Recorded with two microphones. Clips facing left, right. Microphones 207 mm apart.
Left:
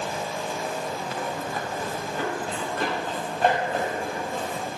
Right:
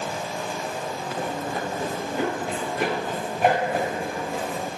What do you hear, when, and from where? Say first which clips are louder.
1.2 s running footsteps: right 2 dB; 25° right (ahead or behind), 5 m; by 4.7 s centre (ahead or behind), 5 m